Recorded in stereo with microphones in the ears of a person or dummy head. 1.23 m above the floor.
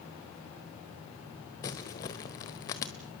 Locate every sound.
1.6 s crumpling: 20° left (ahead or behind), 1.1 m